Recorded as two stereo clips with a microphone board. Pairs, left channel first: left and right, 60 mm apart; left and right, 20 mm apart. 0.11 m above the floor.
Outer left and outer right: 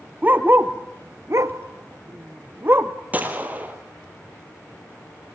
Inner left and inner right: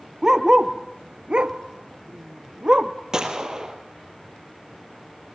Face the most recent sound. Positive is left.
turn(degrees=-25)  # may be behind; listen again after turning